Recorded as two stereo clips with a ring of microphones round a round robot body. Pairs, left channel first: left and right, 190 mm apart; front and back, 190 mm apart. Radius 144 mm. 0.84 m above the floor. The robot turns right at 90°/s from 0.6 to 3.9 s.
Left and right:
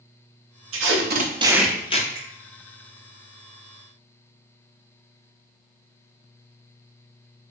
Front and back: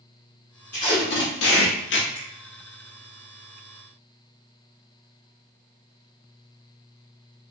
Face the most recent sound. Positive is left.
turn(degrees=35)